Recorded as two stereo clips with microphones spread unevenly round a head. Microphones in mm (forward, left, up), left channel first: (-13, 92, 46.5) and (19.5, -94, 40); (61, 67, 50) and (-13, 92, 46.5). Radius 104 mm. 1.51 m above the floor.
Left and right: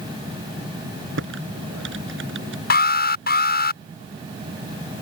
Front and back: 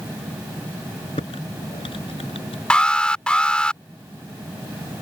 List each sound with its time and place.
1.2 s typing on a keyboard: 55° right
2.7 s an alarm: 60° left